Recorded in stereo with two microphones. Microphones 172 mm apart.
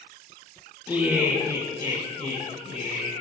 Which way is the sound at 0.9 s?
10° right (ahead or behind).